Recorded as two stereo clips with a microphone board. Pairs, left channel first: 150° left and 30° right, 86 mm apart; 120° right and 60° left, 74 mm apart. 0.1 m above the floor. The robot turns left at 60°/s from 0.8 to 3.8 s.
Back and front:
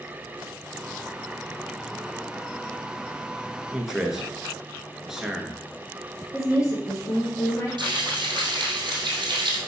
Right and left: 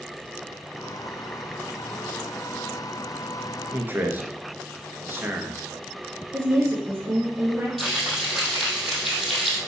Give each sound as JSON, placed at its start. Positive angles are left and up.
{"t": 3.7, "sound": "a man speaking", "azimuth_deg": 55, "distance_m": 1.3}
{"t": 6.3, "sound": "a woman speaking", "azimuth_deg": 110, "distance_m": 2.5}
{"t": 7.8, "sound": "frying", "azimuth_deg": -35, "distance_m": 2.5}